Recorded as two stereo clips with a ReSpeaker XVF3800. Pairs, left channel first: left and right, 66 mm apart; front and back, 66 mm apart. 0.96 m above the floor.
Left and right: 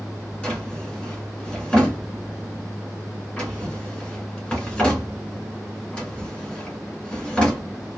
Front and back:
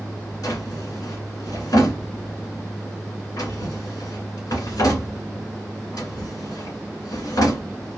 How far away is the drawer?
About 2 m.